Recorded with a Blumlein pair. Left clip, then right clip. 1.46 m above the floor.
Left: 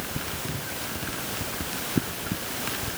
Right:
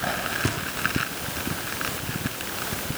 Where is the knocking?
60° right, 2 m.